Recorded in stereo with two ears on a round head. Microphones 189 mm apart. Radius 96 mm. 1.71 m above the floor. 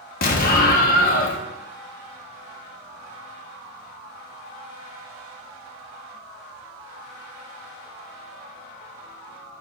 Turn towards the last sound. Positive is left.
turn(degrees=40)  # may be behind; listen again after turning